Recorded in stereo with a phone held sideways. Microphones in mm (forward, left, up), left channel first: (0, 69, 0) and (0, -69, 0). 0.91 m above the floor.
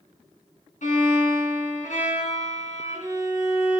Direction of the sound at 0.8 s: 60° left (ahead or behind).